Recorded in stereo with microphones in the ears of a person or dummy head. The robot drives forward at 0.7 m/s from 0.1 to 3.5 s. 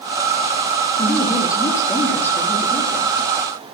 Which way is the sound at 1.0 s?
15° left (ahead or behind).